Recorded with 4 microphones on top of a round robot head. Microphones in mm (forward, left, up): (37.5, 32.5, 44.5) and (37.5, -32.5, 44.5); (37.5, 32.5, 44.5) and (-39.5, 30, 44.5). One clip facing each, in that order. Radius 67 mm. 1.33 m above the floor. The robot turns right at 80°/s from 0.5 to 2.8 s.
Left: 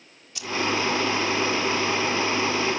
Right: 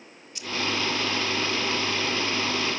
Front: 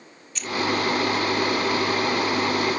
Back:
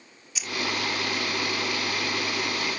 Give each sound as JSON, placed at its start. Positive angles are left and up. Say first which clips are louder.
{"t": 0.3, "sound": "keys jangling", "louder": "left 3 dB, front 5 dB", "azimuth_deg": 95}